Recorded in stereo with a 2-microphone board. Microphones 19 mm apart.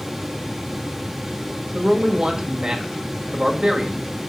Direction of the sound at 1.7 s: 45° right (ahead or behind).